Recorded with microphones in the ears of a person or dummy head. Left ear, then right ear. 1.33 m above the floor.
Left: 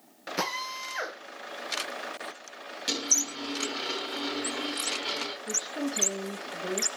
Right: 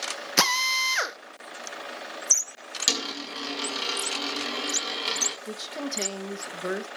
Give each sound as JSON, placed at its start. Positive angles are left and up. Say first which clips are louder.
{"t": 0.4, "sound": "a drill", "louder": "right 10 dB", "side_deg": -65, "distance_m": 1.1}
{"t": 2.9, "sound": "a dropped coin", "louder": "even", "side_deg": -35, "distance_m": 3.0}
{"t": 5.5, "sound": "a woman speaking", "louder": "left 1 dB", "side_deg": -75, "distance_m": 1.2}